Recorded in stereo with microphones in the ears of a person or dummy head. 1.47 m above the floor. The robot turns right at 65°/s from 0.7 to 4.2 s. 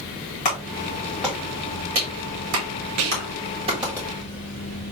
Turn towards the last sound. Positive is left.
turn(degrees=5)